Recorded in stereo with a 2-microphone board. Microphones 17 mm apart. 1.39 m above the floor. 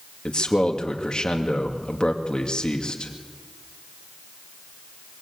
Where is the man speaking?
55° left (ahead or behind), 2 m.